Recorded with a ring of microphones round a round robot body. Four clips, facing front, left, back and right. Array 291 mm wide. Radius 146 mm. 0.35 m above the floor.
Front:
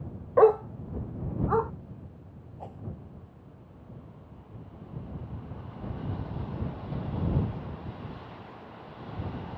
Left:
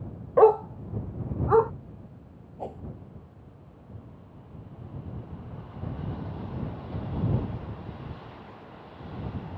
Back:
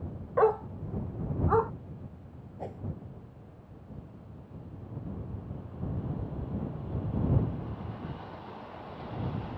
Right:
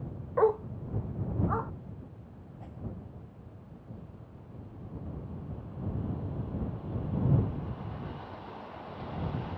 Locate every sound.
0.4 s a dog barking: 50° left; by 1.7 s 95° left
2.6 s a whoosh: 120° left